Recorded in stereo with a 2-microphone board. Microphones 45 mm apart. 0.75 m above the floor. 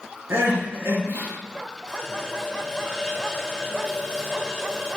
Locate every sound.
0.3 s crying: 75° right (ahead or behind), 4.5 m
1.9 s a running tap: 15° left (ahead or behind), 2 m